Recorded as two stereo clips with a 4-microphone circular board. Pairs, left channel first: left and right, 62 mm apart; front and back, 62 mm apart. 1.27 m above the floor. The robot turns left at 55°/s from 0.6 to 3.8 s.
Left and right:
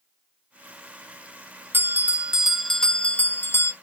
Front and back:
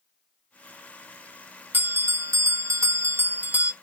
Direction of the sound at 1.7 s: 135° right.